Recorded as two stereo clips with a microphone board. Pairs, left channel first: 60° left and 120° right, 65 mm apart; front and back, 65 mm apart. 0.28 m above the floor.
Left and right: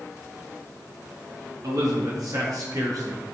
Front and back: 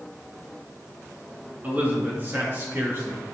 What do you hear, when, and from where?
1.6 s a man speaking: 120° right, 4 m; by 3.2 s 135° right, 5 m